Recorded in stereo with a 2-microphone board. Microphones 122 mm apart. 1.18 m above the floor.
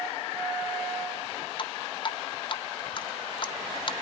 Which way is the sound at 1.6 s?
45° left (ahead or behind).